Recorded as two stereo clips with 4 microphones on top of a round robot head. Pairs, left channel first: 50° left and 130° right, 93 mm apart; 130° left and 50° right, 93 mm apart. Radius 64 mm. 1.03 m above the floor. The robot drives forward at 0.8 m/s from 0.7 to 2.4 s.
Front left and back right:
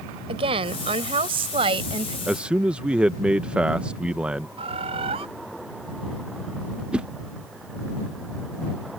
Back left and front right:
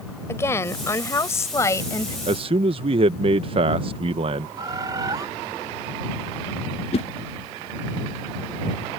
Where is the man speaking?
45° right; by 4.5 s 55° right.